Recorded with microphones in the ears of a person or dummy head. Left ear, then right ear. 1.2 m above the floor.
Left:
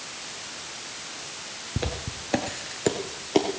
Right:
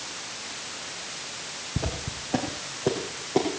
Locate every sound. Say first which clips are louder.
1.8 s footsteps: left 2 dB; 20° left (ahead or behind), 1.2 m; by 3.5 s 50° left (ahead or behind), 1.8 m